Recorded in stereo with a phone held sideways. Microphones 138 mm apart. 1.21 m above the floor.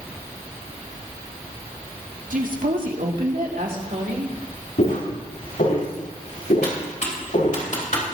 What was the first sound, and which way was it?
A woman speaking, 70° right (ahead or behind).